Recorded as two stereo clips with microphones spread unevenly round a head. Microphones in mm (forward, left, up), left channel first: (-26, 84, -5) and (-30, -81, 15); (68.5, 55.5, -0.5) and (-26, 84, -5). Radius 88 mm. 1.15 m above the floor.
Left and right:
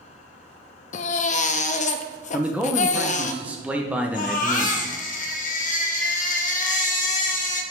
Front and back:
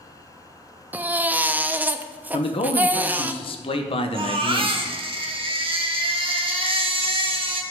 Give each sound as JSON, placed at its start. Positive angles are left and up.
{"t": 0.9, "sound": "a baby crying", "azimuth_deg": 100, "distance_m": 0.5}
{"t": 2.3, "sound": "a man speaking", "azimuth_deg": -5, "distance_m": 0.7}
{"t": 4.1, "sound": "a baby crying", "azimuth_deg": 130, "distance_m": 1.1}